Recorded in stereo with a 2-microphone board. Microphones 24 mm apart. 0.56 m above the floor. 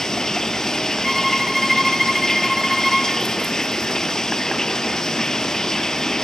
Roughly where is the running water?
Left.